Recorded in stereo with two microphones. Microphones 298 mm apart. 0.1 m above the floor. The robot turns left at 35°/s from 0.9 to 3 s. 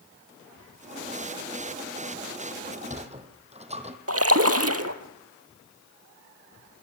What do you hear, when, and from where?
2.6 s a sliding door: 35° right (ahead or behind), 2 m; by 4.0 s 20° right (ahead or behind), 2 m
4.1 s a splash: 55° right (ahead or behind), 1.4 m